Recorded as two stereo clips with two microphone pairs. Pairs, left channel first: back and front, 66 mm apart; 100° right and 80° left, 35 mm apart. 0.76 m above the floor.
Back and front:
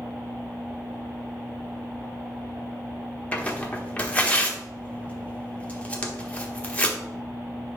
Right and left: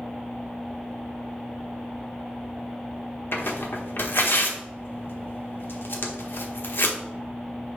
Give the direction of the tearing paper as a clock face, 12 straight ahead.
4 o'clock.